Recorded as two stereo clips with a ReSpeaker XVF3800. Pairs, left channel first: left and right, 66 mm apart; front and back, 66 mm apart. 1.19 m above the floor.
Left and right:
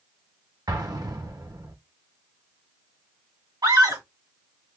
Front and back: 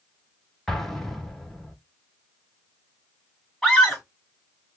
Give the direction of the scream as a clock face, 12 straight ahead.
3 o'clock.